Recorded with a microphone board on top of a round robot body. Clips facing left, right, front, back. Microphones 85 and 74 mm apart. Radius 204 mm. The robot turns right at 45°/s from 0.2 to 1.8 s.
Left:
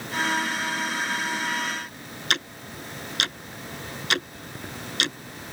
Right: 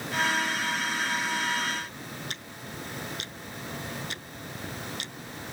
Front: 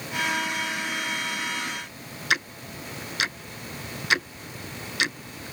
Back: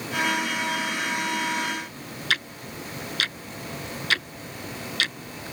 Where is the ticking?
70° left.